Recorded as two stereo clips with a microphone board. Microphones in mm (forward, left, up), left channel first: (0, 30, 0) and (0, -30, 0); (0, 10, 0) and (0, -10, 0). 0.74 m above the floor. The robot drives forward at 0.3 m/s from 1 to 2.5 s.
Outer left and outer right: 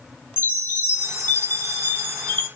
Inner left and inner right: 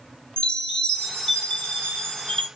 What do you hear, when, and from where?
0.4 s a chime: 40° left (ahead or behind), 2.5 m; by 2.5 s 35° left (ahead or behind), 3 m